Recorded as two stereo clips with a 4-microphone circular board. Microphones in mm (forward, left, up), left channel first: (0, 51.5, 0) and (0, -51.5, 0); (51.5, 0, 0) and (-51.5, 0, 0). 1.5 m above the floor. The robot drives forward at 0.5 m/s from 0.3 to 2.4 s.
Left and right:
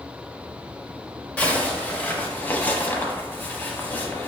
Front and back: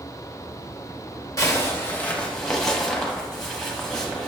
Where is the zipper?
25° left, 1.0 m; by 4.3 s 75° left, 0.9 m.